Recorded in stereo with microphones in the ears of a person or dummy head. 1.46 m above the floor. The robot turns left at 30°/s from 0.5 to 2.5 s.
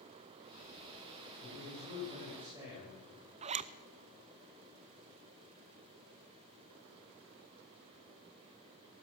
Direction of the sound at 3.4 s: 40° right (ahead or behind).